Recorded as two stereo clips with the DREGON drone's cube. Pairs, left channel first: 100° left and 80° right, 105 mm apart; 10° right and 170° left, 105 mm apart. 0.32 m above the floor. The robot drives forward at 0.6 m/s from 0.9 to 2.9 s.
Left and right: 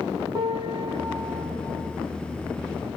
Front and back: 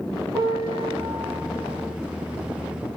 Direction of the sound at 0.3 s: 125° right.